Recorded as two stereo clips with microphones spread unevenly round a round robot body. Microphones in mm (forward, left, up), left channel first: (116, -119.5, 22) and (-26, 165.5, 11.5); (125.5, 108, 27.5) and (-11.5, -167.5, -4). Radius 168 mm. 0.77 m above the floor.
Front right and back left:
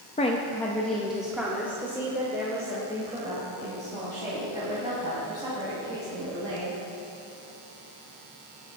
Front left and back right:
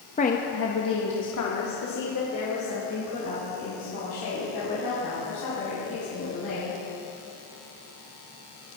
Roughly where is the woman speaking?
Ahead.